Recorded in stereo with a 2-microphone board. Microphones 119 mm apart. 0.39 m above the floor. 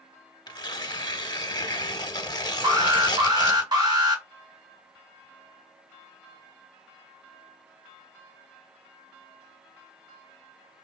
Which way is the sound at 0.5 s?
35° left (ahead or behind).